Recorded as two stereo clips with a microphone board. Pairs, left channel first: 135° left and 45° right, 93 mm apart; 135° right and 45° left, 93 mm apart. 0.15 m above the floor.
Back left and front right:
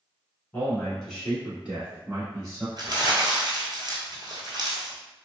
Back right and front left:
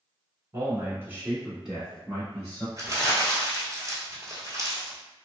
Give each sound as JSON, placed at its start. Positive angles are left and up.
{"t": 0.5, "sound": "a man speaking", "azimuth_deg": 80, "distance_m": 1.3}
{"t": 2.8, "sound": "crumpling", "azimuth_deg": -5, "distance_m": 0.9}